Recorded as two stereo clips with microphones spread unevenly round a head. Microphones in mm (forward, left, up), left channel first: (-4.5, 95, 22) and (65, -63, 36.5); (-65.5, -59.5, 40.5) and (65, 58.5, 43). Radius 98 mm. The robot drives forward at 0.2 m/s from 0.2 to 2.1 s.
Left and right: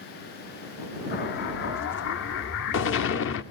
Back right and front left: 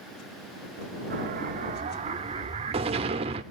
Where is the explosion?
85° left, 0.7 m; by 3.4 s 100° left, 0.7 m.